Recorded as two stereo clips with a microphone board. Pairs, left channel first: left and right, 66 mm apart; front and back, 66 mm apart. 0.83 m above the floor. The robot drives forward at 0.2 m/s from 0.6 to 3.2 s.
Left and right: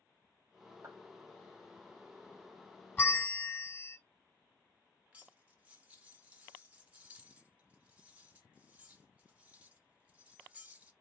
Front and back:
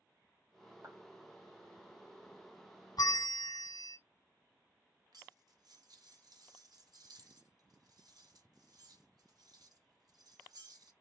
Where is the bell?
20° left, 0.5 m; by 4.0 s 25° left, 0.5 m.